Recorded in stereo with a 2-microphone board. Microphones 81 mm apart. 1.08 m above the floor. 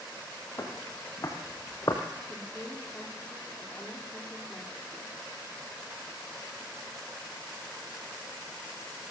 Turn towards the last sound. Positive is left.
turn(degrees=20)  # may be behind; listen again after turning